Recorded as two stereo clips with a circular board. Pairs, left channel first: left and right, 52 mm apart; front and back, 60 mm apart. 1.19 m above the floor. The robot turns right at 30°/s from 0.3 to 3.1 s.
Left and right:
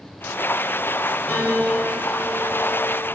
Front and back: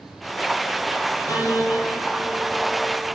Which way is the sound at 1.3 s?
145° left.